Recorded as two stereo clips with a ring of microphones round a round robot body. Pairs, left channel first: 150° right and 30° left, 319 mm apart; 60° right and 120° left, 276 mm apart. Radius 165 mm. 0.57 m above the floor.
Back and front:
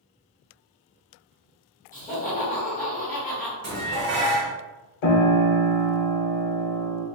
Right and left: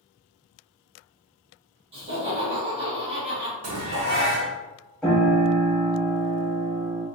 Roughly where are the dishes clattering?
Left.